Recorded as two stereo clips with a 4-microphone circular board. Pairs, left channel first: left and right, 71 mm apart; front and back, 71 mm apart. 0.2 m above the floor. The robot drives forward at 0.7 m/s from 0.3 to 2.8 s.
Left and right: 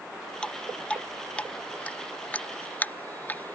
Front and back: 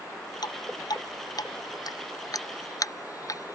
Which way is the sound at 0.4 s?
15° left.